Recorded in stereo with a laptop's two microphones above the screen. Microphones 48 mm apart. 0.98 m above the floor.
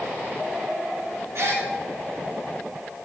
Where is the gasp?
60° right (ahead or behind), 1.1 m.